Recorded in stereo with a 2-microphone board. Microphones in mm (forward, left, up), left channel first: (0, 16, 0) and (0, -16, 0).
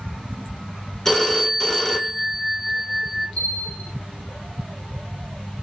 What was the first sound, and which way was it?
A phone ringing, 10° left (ahead or behind).